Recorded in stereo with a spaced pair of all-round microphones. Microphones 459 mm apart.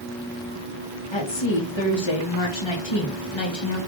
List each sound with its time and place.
1.1 s a woman speaking: 75° left (ahead or behind), 1.2 m